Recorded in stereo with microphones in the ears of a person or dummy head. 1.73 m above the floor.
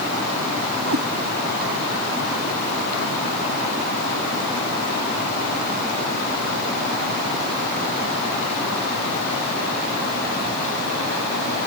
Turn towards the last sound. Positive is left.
turn(degrees=-75)  # may be behind; listen again after turning